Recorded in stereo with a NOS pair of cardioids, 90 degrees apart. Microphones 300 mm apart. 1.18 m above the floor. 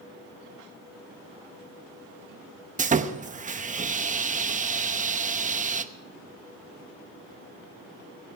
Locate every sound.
2.8 s sawing: 25° right, 0.9 m